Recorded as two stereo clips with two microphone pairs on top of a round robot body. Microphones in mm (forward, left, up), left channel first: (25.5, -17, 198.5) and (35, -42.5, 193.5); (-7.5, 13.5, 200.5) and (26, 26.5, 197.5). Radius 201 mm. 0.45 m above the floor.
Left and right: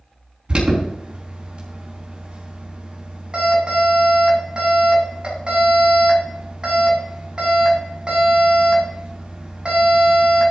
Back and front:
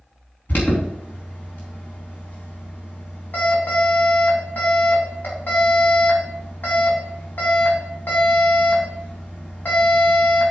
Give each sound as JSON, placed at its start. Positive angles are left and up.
{"t": 0.5, "sound": "an alarm", "azimuth_deg": -125, "distance_m": 4.0}